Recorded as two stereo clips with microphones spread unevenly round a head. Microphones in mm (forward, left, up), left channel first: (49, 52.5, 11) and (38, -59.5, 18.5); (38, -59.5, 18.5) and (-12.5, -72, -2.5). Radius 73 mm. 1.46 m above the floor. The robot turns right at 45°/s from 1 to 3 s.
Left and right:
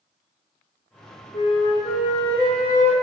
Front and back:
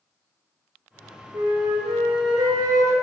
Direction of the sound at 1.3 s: 145° left.